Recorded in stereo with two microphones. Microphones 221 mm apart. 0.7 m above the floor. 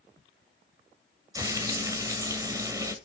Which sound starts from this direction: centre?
Frying, at 1.4 s.